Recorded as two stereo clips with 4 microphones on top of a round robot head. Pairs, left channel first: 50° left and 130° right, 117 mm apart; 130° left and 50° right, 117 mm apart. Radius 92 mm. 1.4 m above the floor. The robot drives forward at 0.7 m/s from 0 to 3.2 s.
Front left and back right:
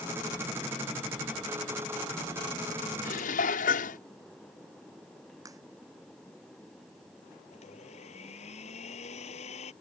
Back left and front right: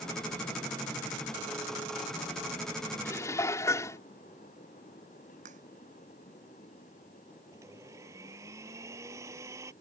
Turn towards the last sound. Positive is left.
turn(degrees=15)